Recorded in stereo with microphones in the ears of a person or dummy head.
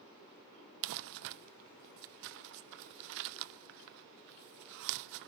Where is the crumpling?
60° right (ahead or behind), 0.5 m.